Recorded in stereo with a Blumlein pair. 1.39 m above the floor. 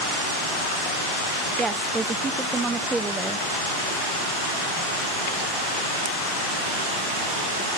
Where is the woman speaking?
15° right, 1.1 m.